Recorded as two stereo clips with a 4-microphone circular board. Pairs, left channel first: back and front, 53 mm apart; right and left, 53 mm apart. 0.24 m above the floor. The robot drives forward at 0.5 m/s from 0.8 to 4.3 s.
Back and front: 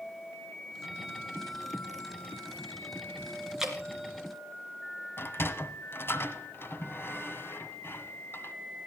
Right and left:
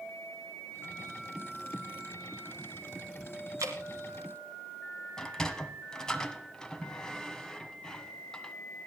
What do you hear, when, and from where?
3.6 s dripping: 80° left, 2.5 m; by 3.8 s 85° left, 2.5 m
5.2 s a sliding door: 165° right, 1.4 m